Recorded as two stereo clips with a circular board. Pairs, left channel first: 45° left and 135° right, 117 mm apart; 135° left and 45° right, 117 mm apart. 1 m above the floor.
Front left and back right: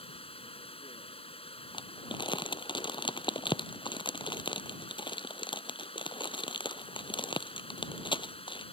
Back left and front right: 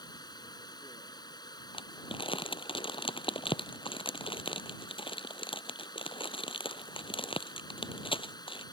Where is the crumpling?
90° left.